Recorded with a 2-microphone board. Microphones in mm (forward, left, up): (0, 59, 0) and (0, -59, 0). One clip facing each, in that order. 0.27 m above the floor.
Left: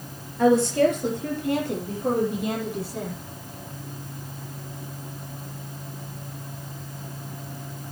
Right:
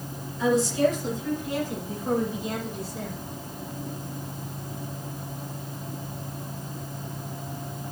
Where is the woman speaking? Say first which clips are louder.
Left 4 dB; 60° left (ahead or behind), 4.5 m; by 3.1 s 65° left (ahead or behind), 7 m.